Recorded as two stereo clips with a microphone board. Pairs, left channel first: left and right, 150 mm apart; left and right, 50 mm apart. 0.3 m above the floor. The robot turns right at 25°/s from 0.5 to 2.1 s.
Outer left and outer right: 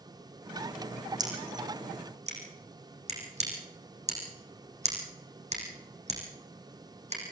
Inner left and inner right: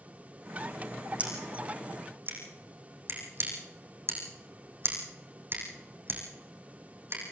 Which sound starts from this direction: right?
Scissors, at 1.2 s.